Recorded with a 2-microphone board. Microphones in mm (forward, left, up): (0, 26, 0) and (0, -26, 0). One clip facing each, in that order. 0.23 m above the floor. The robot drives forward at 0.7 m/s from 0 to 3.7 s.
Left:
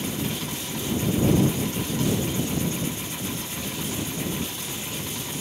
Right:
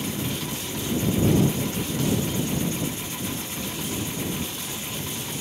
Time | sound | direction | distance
0.2 | a cough | 10° left (ahead or behind) | ?